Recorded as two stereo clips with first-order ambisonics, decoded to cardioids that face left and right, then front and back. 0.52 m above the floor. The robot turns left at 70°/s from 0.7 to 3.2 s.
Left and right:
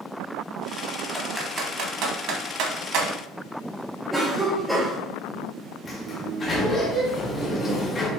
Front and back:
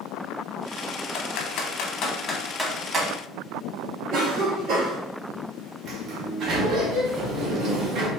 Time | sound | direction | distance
1.1 | typing on a keyboard | 10° left | 0.8 m
4.1 | a cough | 170° right | 1.2 m
5.8 | a sliding door | 150° left | 1.0 m